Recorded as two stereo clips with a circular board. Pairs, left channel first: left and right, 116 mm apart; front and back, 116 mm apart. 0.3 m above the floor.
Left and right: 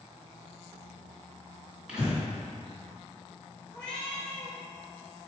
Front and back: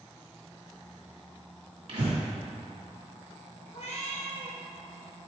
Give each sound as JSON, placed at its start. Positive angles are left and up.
{"t": 1.9, "sound": "breathing", "azimuth_deg": -170, "distance_m": 1.9}
{"t": 3.7, "sound": "a cat meowing", "azimuth_deg": 10, "distance_m": 1.6}